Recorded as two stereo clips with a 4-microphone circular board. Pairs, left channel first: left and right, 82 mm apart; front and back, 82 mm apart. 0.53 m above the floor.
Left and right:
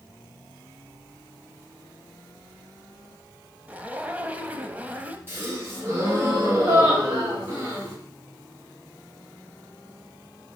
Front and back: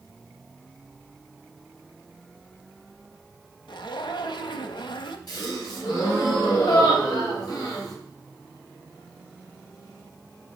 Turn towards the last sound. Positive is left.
turn(degrees=-30)